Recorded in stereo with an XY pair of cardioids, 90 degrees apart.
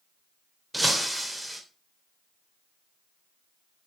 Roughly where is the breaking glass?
Ahead.